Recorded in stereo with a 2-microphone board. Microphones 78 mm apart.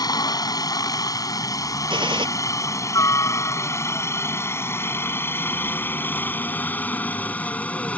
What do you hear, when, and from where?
0.0 s a helicopter: 50° left (ahead or behind); by 8.0 s 15° left (ahead or behind)
1.9 s a gunshot: 80° right